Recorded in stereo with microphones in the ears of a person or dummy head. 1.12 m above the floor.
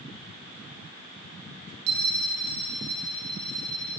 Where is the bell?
65° right (ahead or behind), 2.5 m.